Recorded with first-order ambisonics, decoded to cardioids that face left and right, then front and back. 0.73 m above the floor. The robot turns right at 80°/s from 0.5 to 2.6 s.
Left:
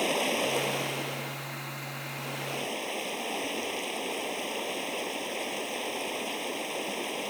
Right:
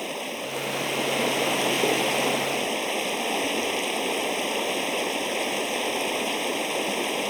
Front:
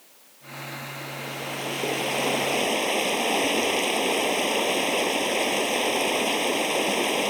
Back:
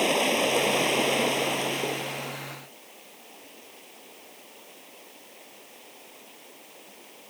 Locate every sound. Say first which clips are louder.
0.0 s running water: left 4 dB, back 28 dB; 170° left; by 7.3 s 25° right